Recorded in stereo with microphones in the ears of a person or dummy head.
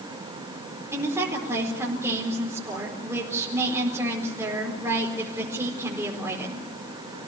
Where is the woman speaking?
15° right (ahead or behind), 5 m.